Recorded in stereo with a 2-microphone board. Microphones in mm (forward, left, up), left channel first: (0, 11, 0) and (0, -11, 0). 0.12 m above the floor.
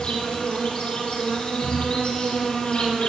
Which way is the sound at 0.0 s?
50° left (ahead or behind).